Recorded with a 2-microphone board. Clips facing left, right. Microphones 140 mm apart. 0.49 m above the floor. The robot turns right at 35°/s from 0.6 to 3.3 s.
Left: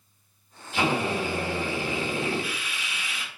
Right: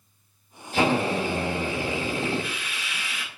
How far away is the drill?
About 0.9 m.